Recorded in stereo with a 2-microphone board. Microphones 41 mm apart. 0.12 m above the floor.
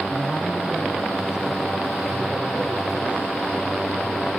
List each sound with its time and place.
0.1 s a man speaking: 10° right (ahead or behind), 3.5 m; by 4.3 s 35° right (ahead or behind), 7 m